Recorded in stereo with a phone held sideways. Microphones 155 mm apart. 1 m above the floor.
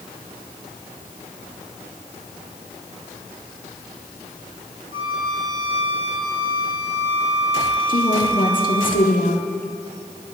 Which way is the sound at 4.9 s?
75° right (ahead or behind).